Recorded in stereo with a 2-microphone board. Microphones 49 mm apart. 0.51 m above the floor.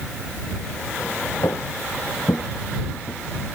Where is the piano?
I don't hear a piano.